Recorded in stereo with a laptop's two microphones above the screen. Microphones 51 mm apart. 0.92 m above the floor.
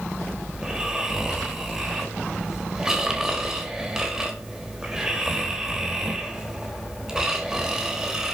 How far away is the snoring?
About 1.0 m.